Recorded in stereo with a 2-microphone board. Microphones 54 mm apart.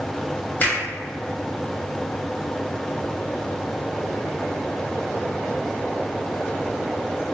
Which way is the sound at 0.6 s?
30° left (ahead or behind).